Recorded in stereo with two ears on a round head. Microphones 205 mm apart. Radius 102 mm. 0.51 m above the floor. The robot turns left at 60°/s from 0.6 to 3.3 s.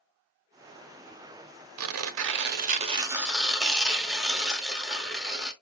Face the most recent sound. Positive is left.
turn(degrees=180)